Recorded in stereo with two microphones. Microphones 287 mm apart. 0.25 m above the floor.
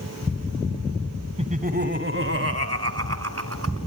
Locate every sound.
1.4 s laughter: 20° right (ahead or behind), 1.1 m; by 3.8 s 60° right (ahead or behind), 2.5 m